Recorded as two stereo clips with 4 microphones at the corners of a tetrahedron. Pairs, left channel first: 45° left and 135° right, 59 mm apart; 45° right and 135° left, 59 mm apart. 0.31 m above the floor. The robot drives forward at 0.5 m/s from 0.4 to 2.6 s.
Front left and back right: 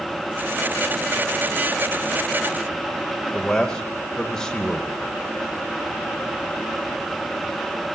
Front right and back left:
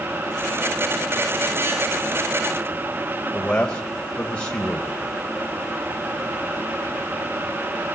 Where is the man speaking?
25° right, 0.9 m.